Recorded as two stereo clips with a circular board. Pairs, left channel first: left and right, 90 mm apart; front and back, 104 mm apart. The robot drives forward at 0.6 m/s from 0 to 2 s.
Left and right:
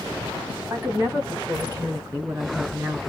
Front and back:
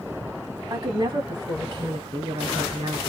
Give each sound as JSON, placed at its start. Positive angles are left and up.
{"t": 0.7, "sound": "a woman speaking", "azimuth_deg": -150, "distance_m": 2.0}